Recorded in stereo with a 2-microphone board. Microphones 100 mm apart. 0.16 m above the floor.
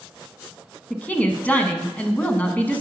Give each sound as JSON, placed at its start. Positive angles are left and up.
{"t": 0.9, "sound": "a woman speaking", "side_deg": 15, "distance_m": 1.0}